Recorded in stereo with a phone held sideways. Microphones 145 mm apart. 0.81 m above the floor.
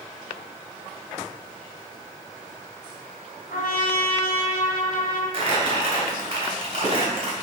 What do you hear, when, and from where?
3.5 s a trumpet: 80° left, 2 m
5.3 s crumpling: 45° right (ahead or behind), 2.5 m